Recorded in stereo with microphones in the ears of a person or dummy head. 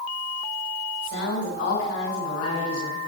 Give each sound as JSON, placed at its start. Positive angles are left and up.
{"t": 1.0, "sound": "a woman speaking", "side_deg": 85, "distance_m": 5.5}